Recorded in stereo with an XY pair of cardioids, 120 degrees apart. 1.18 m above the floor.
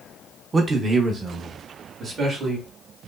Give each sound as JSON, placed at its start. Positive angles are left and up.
{"t": 0.5, "sound": "a man speaking", "azimuth_deg": -30, "distance_m": 0.8}